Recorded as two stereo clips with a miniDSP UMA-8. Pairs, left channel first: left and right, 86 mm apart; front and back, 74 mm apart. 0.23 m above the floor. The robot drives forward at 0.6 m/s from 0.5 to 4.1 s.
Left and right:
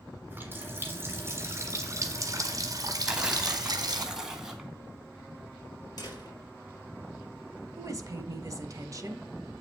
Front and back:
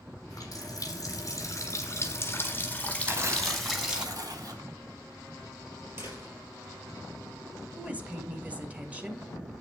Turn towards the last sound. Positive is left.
turn(degrees=-115)